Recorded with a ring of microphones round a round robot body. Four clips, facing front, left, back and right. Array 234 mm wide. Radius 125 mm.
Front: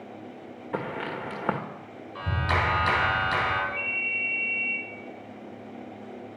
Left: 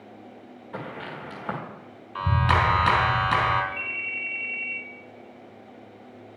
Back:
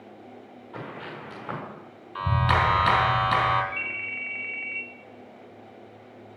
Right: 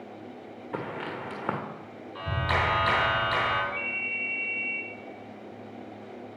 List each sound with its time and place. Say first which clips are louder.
0.7 s footsteps: right 2 dB, front 6 dB; 15° right, 1.8 m
2.1 s a clap: left 6 dB, back 4 dB; 120° left, 2.5 m
3.7 s a ringtone: right 1 dB, front 2 dB; 165° left, 1.3 m